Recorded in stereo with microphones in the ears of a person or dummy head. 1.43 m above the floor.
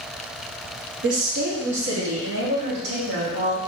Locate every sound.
1.0 s a woman speaking: 60° right (ahead or behind), 0.9 m; by 3.6 s 85° right, 2 m